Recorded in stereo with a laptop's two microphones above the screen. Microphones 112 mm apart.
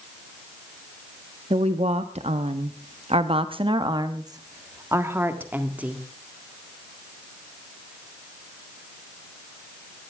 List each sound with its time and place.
1.5 s a woman speaking: 70° right (ahead or behind), 1.4 m; by 6.0 s 10° right (ahead or behind), 2 m